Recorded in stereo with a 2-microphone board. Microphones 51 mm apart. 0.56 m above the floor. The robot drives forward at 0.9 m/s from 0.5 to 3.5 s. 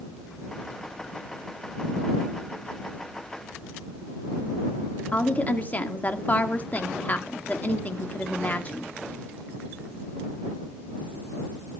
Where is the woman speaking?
30° left (ahead or behind), 1.3 m.